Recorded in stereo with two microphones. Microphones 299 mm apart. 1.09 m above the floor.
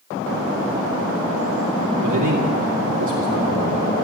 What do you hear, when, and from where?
2.0 s a man speaking: 80° right, 3 m